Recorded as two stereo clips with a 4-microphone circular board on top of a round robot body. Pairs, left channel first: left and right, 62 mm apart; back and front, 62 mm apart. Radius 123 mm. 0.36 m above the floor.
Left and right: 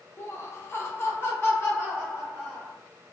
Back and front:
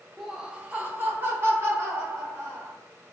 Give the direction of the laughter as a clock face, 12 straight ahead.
9 o'clock.